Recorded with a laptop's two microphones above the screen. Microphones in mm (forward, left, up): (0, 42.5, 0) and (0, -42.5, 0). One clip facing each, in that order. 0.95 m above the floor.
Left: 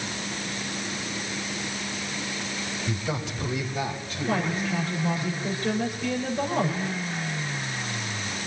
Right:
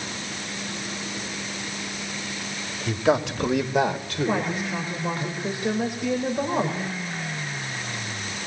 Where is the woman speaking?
20° right (ahead or behind), 3.5 m.